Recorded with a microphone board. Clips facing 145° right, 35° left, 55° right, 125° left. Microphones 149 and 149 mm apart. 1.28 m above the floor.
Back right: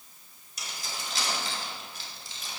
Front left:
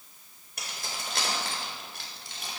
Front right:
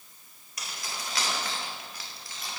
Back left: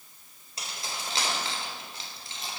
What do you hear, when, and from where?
0.6 s keys jangling: 60° left, 3.5 m